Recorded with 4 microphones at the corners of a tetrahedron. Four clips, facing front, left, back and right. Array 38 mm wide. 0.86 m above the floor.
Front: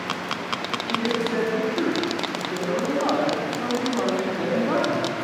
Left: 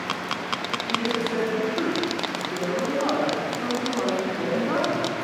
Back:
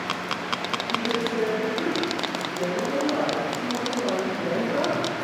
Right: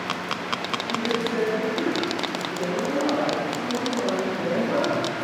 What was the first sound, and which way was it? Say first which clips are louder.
A woman speaking: even, front 3 dB; 10° right.